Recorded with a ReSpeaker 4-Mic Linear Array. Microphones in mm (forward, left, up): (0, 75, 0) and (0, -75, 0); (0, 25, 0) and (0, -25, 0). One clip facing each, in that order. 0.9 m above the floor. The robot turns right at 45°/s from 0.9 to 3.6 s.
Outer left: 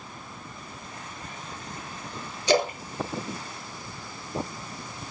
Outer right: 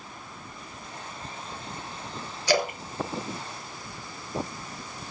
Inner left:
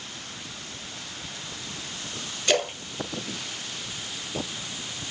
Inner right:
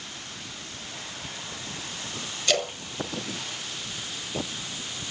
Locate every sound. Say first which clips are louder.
2.5 s a splash: outer left 2 dB, inner left 2 dB; 20° left (ahead or behind), 1.4 m; by 4.2 s 70° left (ahead or behind), 1.4 m